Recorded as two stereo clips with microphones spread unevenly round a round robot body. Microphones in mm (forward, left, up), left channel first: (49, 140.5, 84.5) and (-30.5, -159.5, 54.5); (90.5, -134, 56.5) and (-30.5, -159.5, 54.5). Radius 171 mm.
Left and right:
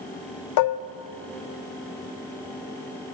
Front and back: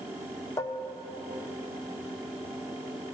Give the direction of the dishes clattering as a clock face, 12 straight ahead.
10 o'clock.